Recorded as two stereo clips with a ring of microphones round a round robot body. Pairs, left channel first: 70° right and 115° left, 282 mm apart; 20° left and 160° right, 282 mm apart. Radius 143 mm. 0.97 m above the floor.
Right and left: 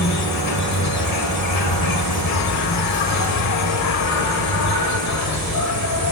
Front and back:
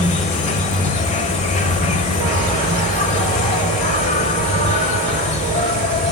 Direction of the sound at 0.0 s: 40° right.